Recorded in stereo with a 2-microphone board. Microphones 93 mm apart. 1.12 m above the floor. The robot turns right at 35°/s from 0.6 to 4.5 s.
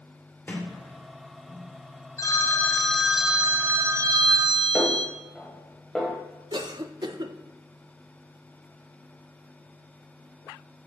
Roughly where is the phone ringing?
Behind left.